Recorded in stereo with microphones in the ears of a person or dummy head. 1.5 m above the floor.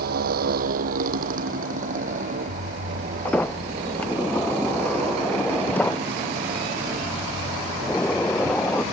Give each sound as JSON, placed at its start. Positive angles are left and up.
{"t": 0.0, "sound": "a motorcycle", "side_deg": -55}
{"t": 3.2, "sound": "a sliding door", "side_deg": 10}